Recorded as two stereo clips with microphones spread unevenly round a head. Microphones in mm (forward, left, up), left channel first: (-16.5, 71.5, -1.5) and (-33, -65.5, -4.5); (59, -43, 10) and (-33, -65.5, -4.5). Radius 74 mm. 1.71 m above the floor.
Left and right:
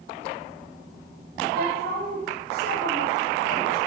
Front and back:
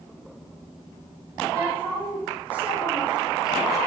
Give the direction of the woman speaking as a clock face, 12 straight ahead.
3 o'clock.